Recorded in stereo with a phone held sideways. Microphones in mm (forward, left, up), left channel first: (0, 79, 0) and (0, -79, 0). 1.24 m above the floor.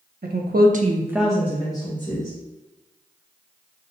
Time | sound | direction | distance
0.2 | a woman speaking | 80° right | 0.8 m